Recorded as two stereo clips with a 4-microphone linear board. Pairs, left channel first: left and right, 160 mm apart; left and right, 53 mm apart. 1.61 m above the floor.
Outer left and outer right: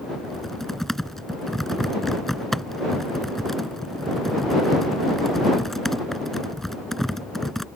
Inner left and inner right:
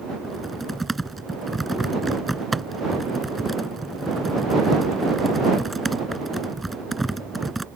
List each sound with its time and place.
0.2 s typing on a keyboard: centre (ahead or behind)